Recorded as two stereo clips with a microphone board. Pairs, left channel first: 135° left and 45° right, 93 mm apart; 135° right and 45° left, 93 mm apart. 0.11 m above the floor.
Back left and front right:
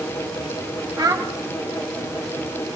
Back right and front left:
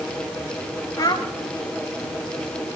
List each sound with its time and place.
1.0 s a child speaking: 85° right, 1.8 m